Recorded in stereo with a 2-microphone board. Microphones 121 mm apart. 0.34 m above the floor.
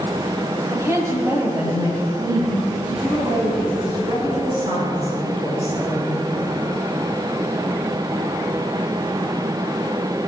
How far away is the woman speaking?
About 1.8 m.